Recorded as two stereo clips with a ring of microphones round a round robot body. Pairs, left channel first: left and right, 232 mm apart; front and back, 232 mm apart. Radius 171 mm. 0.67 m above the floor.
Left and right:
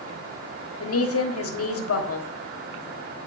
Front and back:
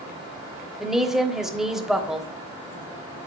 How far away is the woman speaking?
About 1.5 m.